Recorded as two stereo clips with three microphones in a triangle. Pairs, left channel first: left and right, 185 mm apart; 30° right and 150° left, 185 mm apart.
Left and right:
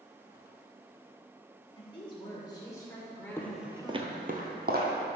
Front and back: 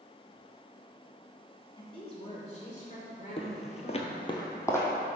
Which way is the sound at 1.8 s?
30° left.